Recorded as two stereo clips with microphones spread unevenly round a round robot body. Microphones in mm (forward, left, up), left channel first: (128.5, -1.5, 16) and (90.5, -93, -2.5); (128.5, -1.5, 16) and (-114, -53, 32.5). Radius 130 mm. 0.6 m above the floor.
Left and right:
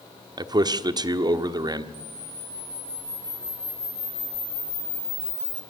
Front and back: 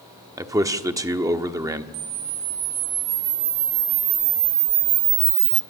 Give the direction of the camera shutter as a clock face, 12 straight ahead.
7 o'clock.